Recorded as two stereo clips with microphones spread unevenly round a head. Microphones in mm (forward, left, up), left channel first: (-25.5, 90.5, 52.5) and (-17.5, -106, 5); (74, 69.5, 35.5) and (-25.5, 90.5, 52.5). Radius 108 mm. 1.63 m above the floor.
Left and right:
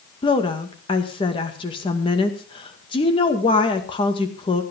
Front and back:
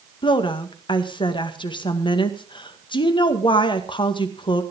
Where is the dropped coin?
No dropped coin in this recording.